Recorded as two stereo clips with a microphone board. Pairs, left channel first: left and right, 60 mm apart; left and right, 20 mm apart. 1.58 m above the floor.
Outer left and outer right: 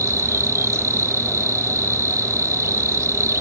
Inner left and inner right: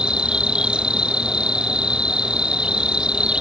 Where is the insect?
55° right (ahead or behind).